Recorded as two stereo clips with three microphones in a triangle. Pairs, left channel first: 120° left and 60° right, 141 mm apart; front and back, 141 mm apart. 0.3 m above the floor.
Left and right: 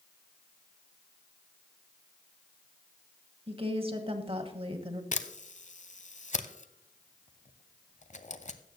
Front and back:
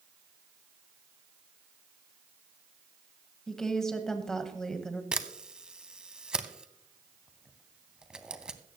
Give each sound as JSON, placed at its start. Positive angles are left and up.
{"t": 3.5, "sound": "a woman speaking", "azimuth_deg": -85, "distance_m": 1.5}
{"t": 5.1, "sound": "a camera shutter", "azimuth_deg": 95, "distance_m": 0.8}